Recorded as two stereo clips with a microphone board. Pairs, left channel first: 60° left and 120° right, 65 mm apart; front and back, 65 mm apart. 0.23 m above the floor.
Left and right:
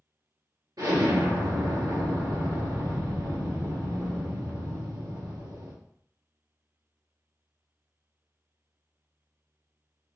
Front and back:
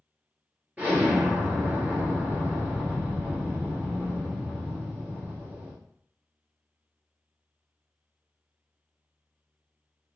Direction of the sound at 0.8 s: 115° right.